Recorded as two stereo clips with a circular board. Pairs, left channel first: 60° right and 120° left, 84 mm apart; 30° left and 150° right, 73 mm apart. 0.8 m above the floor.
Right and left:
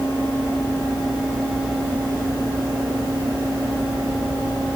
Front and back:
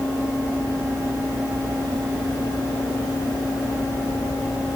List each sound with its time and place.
Only background noise.